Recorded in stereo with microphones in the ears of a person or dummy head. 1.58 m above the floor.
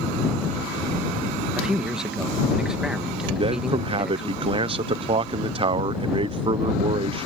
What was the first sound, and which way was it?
A man speaking, 5° right (ahead or behind).